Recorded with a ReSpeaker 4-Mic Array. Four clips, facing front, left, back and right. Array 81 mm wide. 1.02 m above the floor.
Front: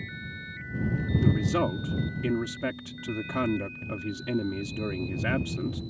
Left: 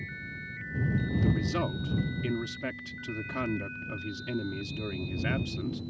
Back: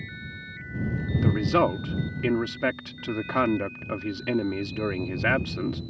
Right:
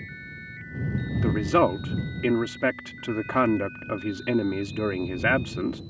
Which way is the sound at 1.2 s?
115° right.